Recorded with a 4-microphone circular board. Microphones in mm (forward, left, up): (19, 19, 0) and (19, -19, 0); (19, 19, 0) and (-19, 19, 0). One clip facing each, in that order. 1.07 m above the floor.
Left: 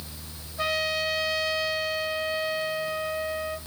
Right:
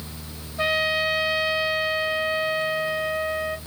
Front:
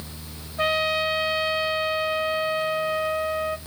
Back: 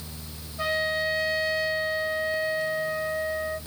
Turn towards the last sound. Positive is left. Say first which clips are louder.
# right 4 dB, front 3 dB
turn(degrees=-25)